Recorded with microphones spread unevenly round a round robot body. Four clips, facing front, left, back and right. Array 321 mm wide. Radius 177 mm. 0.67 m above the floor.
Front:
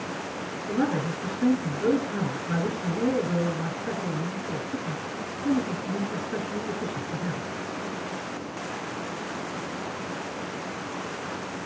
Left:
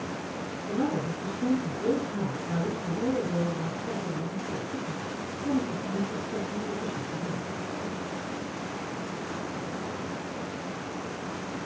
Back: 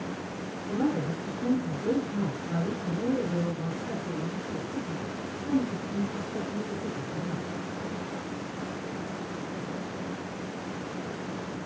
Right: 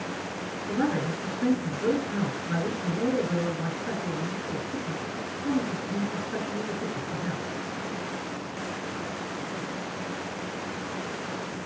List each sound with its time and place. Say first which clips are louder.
0.7 s a man speaking: right 2 dB, front 2 dB; 25° right, 9.5 m